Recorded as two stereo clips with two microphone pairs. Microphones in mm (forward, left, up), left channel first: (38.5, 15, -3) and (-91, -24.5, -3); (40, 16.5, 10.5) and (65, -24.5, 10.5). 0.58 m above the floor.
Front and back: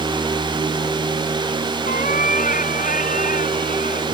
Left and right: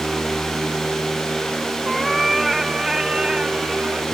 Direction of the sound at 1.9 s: 35° left.